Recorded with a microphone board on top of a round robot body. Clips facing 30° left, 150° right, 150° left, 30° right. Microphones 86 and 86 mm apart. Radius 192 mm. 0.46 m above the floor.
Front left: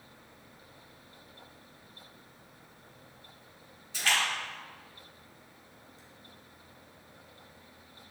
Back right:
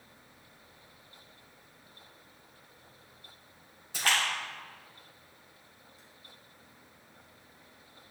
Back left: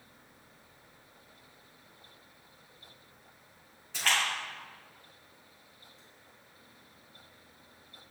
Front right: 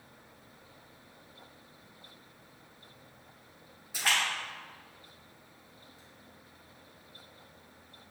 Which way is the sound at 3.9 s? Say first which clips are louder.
Even, even; 110° right.